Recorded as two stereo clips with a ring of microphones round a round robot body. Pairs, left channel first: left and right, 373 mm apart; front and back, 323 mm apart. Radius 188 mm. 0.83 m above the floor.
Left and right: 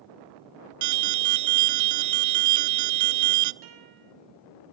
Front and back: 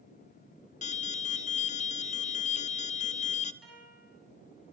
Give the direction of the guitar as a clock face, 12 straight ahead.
3 o'clock.